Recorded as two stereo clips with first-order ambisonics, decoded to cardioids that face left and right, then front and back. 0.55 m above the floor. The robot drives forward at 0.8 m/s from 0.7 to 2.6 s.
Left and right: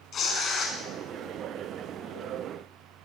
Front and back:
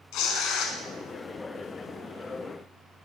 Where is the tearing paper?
35° left, 2.5 m.